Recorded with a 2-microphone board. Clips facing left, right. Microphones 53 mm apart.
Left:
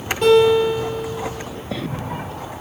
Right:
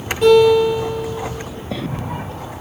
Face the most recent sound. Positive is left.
turn(degrees=-10)  # may be behind; listen again after turning